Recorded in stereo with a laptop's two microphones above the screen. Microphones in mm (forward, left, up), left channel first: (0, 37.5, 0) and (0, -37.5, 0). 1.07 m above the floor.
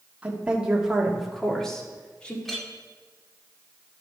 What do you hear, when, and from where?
0.2 s a woman speaking: 20° right (ahead or behind), 1.9 m; by 2.4 s 15° left (ahead or behind), 2 m
2.5 s a clink: 5° left (ahead or behind), 1.5 m